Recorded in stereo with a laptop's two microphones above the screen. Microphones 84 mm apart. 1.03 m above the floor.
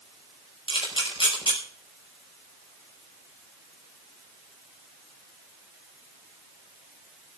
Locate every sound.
0.7 s a camera shutter: 85° left, 5.5 m